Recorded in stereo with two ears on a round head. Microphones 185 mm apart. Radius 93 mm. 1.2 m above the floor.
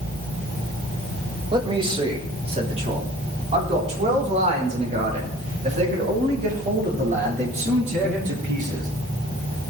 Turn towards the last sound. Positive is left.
turn(degrees=-40)  # may be behind; listen again after turning